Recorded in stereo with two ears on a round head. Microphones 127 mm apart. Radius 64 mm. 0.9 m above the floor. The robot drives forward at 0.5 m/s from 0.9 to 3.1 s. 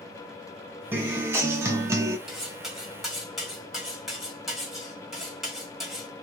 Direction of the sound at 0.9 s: 15° right (ahead or behind).